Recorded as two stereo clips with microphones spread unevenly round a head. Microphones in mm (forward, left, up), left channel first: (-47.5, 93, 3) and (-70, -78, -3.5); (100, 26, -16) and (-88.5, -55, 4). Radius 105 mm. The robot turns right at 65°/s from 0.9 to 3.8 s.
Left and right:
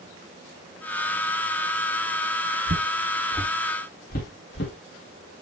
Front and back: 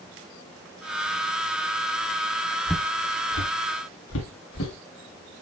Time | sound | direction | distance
2.7 | footsteps | 70° right | 2 m